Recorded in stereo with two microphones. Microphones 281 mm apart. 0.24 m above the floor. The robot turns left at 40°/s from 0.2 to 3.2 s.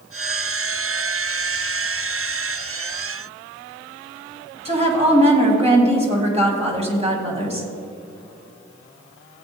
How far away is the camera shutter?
I don't hear a camera shutter.